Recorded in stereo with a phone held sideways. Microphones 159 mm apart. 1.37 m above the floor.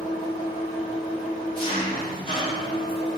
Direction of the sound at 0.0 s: 35° left (ahead or behind).